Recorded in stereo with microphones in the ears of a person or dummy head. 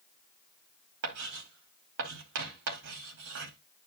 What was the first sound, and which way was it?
Writing, 60° right (ahead or behind).